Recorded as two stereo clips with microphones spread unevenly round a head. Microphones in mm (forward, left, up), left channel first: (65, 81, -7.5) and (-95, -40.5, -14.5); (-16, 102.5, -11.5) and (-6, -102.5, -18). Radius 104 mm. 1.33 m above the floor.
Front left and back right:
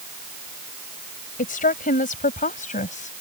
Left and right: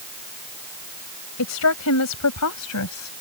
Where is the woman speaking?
85° left; by 3.1 s 90° left.